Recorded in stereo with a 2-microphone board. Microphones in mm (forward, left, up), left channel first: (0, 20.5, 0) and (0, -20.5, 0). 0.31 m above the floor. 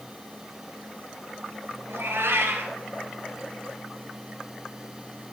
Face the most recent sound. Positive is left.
turn(degrees=-85)